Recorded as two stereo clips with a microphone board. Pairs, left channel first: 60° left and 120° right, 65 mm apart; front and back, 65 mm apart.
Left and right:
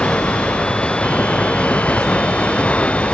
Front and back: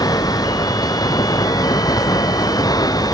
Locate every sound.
0.0 s running water: 15° right